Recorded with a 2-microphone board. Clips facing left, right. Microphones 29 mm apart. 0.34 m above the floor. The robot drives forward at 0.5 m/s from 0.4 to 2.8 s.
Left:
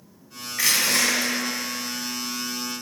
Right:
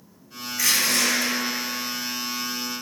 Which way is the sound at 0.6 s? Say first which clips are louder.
Left 1 dB; 35° left (ahead or behind).